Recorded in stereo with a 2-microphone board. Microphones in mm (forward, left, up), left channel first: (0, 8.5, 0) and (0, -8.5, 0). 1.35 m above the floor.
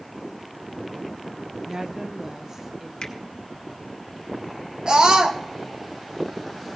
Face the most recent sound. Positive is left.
turn(degrees=-50)  # may be behind; listen again after turning